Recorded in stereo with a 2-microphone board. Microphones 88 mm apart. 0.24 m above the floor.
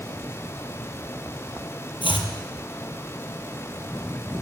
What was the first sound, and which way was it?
Chopping, 80° left.